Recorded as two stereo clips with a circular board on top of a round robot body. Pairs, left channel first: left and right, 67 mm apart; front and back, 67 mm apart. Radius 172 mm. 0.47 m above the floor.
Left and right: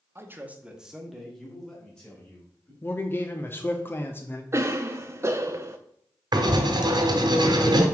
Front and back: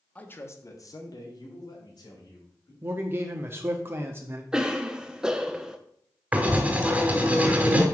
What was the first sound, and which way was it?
A man speaking, 55° right.